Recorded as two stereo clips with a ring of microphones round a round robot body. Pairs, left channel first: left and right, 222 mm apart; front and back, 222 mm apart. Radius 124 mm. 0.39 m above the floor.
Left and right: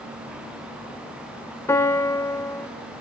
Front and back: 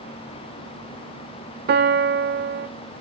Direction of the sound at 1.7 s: 165° left.